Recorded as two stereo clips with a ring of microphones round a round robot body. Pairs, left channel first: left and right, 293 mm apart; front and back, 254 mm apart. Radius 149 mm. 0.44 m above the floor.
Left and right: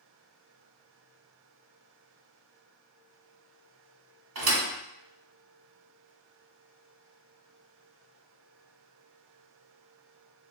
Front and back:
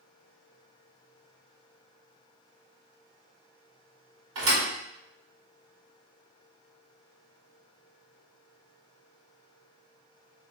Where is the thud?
135° right, 1.6 m.